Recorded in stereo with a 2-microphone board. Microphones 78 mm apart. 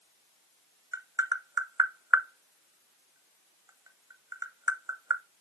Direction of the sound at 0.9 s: 50° right (ahead or behind).